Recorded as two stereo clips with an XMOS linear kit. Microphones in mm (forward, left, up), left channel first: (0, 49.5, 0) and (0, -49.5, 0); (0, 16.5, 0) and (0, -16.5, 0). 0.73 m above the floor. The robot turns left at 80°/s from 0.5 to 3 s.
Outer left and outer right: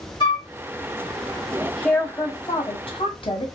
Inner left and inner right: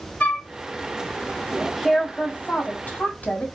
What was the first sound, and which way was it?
A flute, 50° left (ahead or behind).